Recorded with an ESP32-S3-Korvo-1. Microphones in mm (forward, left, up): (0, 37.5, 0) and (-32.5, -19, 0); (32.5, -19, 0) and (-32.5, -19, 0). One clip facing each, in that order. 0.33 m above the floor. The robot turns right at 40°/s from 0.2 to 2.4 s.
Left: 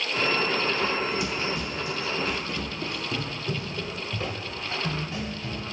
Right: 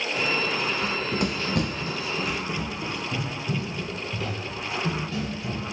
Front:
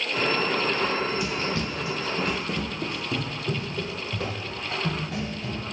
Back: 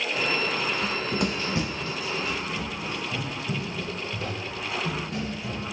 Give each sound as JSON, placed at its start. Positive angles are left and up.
{"t": 0.8, "sound": "running footsteps", "azimuth_deg": 170, "distance_m": 1.0}